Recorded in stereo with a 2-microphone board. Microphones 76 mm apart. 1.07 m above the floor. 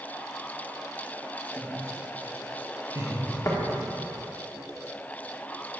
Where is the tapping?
40° left (ahead or behind), 1.6 m.